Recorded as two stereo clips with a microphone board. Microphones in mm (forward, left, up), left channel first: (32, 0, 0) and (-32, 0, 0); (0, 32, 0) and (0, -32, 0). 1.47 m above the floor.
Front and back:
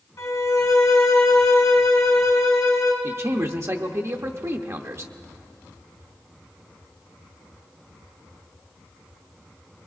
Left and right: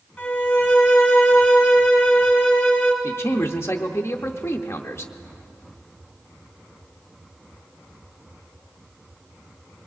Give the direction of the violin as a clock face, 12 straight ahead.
11 o'clock.